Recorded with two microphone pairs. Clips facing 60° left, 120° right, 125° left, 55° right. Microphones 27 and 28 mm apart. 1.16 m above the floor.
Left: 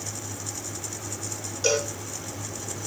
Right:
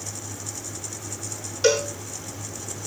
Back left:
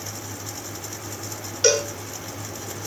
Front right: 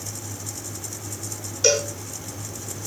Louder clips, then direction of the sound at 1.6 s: Right 4 dB, back left 1 dB; 175° left.